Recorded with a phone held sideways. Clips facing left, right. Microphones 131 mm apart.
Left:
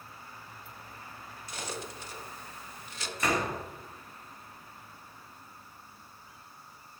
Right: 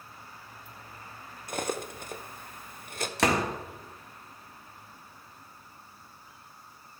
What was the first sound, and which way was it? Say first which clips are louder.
Cutlery clinking: right 7 dB; 55° right (ahead or behind).